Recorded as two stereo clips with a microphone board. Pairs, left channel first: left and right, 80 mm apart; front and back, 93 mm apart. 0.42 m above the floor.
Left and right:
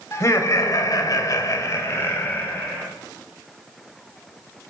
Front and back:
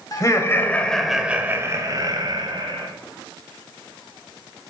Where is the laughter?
45° left, 2 m; by 2.9 s 155° left, 3 m.